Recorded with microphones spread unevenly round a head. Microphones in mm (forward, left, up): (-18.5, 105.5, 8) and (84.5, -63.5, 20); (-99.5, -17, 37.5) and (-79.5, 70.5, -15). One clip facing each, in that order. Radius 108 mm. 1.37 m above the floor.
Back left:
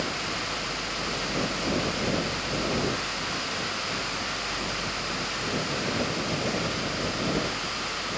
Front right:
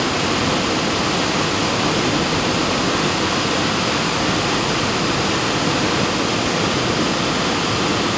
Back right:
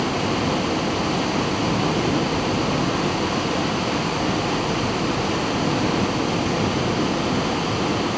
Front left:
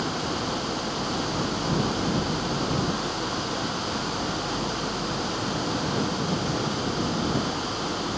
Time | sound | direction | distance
0.0 | running water | 45° right | ?